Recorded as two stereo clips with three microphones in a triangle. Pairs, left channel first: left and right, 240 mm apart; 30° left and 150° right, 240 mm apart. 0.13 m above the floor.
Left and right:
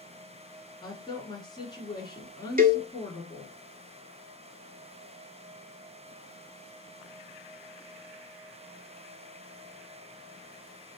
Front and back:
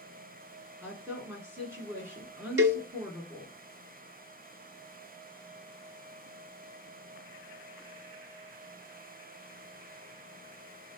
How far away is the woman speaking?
About 1.6 m.